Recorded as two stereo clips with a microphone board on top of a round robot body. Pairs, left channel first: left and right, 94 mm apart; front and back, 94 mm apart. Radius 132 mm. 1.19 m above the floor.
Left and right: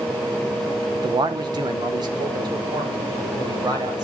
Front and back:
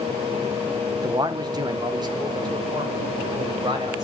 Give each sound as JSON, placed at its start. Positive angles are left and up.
{"t": 0.9, "sound": "a man speaking", "azimuth_deg": -130, "distance_m": 0.9}